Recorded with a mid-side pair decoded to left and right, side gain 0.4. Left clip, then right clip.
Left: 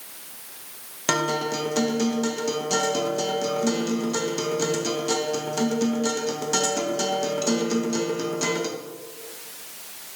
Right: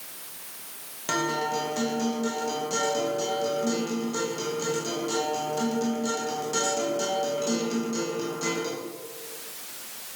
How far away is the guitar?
About 1.6 m.